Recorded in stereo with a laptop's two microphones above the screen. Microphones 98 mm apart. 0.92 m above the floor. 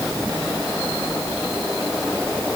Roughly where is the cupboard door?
No cupboard door in this recording.